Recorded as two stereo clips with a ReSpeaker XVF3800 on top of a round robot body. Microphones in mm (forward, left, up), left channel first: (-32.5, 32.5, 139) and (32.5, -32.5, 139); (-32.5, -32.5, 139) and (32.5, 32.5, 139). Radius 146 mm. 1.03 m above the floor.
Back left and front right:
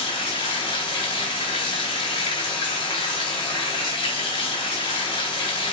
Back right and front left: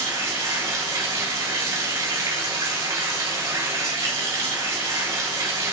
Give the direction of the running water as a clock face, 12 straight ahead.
9 o'clock.